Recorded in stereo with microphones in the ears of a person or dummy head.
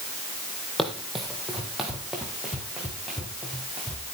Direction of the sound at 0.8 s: Centre (ahead or behind).